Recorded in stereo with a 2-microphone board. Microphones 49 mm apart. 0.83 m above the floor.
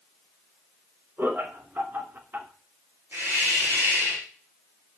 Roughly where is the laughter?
Right.